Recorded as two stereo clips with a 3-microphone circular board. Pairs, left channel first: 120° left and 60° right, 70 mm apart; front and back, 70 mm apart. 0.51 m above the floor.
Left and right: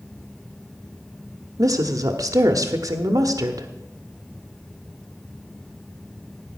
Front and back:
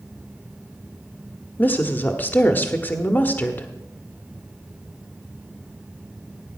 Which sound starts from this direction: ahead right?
A woman speaking, at 1.6 s.